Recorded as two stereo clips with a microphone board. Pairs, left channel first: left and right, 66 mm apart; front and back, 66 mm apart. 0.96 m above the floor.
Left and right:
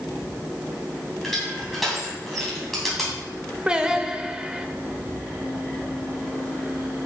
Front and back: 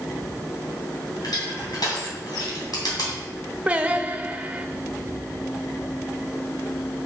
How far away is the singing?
About 0.7 m.